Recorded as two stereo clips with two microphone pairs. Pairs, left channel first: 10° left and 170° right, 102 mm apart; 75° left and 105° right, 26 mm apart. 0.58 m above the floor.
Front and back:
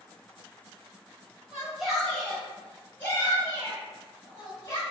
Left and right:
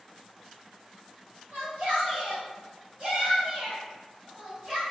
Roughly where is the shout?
Right.